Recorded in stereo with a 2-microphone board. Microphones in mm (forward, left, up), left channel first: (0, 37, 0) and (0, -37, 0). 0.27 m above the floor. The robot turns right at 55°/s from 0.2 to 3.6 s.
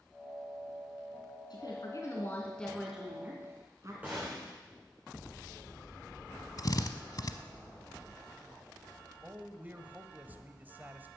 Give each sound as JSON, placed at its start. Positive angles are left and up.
{"t": 1.5, "sound": "a woman speaking", "azimuth_deg": 105, "distance_m": 3.0}
{"t": 4.0, "sound": "a gunshot", "side_deg": -15, "distance_m": 6.0}
{"t": 6.6, "sound": "a drill", "side_deg": 55, "distance_m": 0.9}
{"t": 9.2, "sound": "a man speaking", "side_deg": -25, "distance_m": 1.1}